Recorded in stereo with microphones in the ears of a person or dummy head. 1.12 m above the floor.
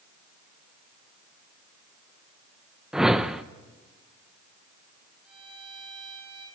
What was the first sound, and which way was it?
A whoosh, centre (ahead or behind).